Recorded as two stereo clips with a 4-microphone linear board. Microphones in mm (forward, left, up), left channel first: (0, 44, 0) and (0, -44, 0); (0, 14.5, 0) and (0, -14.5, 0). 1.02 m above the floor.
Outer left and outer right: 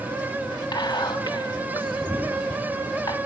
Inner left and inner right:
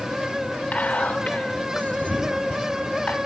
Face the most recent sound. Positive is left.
turn(degrees=55)  # may be behind; listen again after turning